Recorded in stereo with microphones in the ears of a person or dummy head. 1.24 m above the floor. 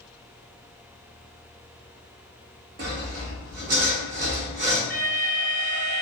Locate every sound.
2.8 s sawing: 40° right (ahead or behind), 0.7 m
4.9 s an alarm: 25° right (ahead or behind), 1.9 m